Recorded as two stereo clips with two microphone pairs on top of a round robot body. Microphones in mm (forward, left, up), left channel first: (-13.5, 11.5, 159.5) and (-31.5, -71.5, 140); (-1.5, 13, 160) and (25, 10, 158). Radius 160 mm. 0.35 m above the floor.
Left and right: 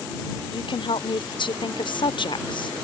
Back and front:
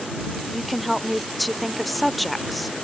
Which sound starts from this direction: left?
A woman speaking, at 0.5 s.